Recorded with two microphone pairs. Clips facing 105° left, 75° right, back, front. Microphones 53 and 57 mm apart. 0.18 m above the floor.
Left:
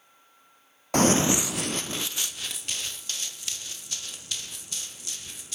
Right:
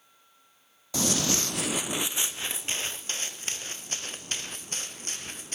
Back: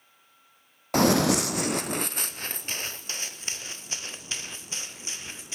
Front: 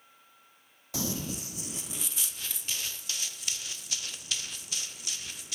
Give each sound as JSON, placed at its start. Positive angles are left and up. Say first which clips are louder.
{"t": 0.9, "sound": "running footsteps", "louder": "left 7 dB, back 15 dB", "azimuth_deg": 145, "distance_m": 0.6}